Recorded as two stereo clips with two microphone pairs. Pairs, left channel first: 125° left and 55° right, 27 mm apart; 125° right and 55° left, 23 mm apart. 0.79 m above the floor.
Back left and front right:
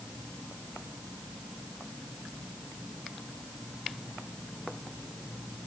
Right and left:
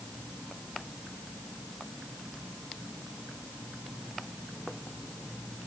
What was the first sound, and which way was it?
Only background noise.